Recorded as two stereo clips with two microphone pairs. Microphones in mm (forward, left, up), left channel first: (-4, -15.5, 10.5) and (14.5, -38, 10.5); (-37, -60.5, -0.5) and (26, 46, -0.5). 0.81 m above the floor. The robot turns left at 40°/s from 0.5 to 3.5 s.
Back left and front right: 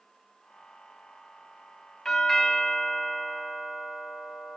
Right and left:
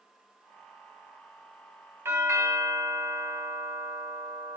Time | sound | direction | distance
2.0 | a doorbell | 80° left | 0.9 m